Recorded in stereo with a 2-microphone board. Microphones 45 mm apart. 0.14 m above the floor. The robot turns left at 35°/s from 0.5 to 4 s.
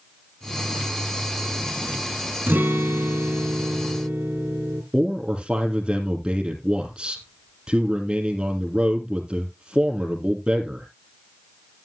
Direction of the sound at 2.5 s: 65° right.